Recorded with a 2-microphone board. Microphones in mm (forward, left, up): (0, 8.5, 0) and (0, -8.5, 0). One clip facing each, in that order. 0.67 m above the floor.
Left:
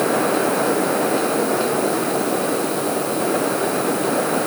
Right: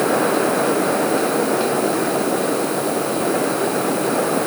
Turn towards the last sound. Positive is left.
No sound to turn to.